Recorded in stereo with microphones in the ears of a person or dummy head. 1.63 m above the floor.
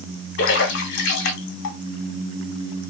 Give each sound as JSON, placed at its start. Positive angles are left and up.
{"t": 0.4, "sound": "a splash", "side_deg": 65, "distance_m": 1.1}